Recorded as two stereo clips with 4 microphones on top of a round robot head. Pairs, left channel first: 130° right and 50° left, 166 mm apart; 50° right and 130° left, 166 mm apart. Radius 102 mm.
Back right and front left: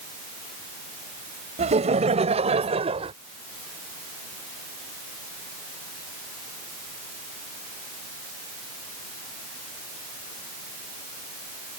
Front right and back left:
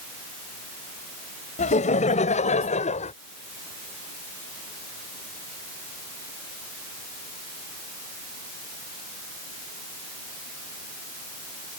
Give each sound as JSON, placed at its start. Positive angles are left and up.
{"t": 1.6, "sound": "laughter", "azimuth_deg": 0}